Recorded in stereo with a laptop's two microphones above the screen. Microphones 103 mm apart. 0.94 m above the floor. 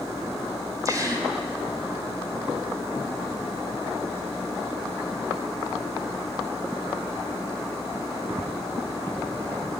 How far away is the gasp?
About 4 m.